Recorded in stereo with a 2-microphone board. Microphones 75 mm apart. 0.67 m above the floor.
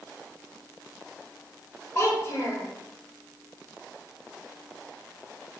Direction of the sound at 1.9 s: 40° left (ahead or behind).